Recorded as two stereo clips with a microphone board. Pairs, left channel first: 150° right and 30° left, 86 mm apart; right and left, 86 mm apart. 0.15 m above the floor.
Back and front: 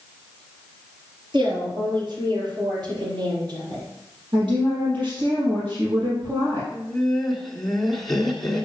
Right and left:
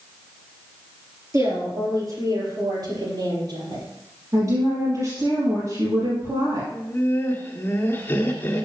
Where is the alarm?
No alarm in this recording.